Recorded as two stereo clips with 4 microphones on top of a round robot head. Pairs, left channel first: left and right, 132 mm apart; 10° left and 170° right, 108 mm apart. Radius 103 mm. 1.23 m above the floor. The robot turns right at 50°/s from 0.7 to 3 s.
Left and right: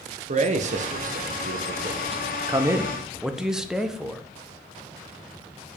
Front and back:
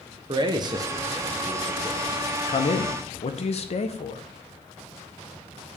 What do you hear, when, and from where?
0.3 s a man speaking: 120° right, 0.9 m; by 4.2 s 5° right, 0.9 m